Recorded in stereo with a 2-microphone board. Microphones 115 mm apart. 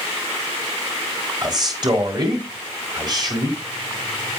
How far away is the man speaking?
About 4 m.